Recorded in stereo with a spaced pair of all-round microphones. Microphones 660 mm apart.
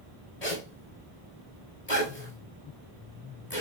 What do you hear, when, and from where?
0.4 s a zipper: 70° left (ahead or behind), 4.5 m